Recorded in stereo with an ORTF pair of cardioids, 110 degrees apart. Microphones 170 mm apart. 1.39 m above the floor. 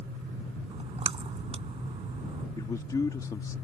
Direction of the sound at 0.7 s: 35° right.